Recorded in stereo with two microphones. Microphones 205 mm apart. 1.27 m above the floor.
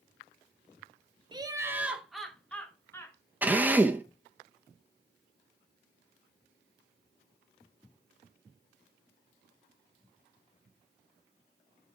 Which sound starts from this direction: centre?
A drill, at 3.4 s.